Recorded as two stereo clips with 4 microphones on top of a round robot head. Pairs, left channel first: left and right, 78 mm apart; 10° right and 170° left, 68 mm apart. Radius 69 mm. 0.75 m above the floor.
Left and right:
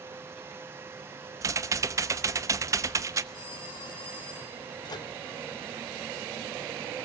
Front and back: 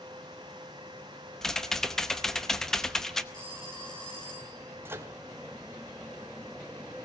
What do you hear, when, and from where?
1.4 s typing on a keyboard: 90° right, 0.9 m
3.3 s a phone ringing: 70° left, 4 m
4.8 s a microwave: 115° left, 1.9 m